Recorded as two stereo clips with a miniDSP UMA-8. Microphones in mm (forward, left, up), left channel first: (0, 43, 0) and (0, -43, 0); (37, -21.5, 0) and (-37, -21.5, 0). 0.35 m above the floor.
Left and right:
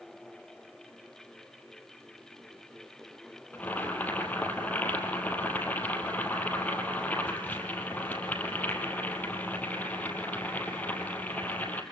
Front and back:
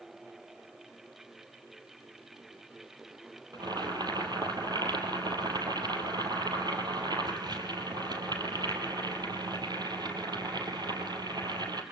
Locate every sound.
3.5 s boiling: 160° left, 3 m